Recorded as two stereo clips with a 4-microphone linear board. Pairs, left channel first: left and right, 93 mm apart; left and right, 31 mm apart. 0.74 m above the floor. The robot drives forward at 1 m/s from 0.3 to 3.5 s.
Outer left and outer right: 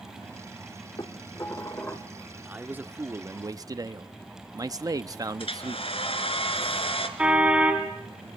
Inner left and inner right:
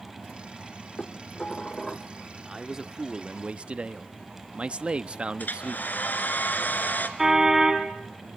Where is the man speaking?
15° right (ahead or behind), 1.5 m; by 5.9 s 40° right (ahead or behind), 0.7 m.